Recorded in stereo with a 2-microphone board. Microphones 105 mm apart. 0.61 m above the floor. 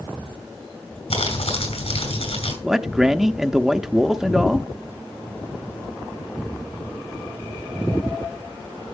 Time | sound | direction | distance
1.1 | crumpling | 80° left | 5.5 m
2.6 | a man speaking | 5° right (ahead or behind) | 0.5 m